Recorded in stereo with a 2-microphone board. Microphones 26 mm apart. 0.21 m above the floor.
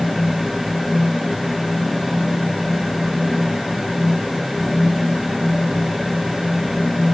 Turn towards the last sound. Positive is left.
No sound to turn to.